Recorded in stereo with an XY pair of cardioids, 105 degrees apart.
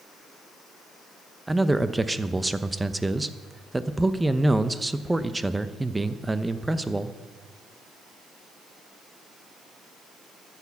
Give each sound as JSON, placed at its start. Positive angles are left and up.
{"t": 1.5, "sound": "a man speaking", "azimuth_deg": -10, "distance_m": 0.8}